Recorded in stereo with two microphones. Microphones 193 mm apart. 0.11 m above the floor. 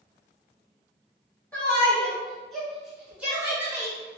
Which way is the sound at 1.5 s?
10° left (ahead or behind).